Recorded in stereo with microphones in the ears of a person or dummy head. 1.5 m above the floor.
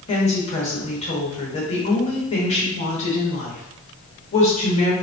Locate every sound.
0.1 s a woman speaking: 30° left (ahead or behind), 1.0 m